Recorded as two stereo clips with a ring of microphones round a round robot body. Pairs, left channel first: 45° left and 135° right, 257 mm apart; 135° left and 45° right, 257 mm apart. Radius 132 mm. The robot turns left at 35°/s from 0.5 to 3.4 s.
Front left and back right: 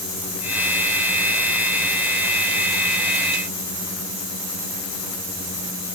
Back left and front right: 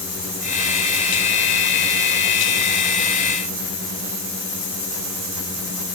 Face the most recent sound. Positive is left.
No sound to turn to.